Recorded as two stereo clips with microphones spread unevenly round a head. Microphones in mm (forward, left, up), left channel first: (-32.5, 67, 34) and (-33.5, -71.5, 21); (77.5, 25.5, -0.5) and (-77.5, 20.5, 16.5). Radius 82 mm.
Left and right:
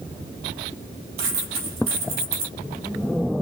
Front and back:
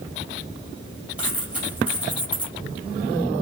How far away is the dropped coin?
About 2.5 m.